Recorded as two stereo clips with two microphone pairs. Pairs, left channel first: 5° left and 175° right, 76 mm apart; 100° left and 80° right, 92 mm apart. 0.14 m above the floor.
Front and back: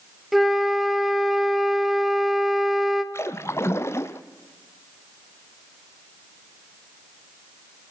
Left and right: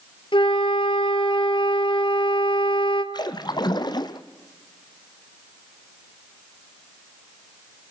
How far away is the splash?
About 1.0 m.